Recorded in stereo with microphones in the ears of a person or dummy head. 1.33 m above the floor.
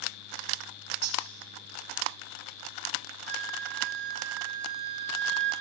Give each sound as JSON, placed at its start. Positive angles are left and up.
{"t": 1.0, "sound": "cutlery clinking", "side_deg": -80, "distance_m": 4.5}
{"t": 3.3, "sound": "a flute", "side_deg": -70, "distance_m": 5.0}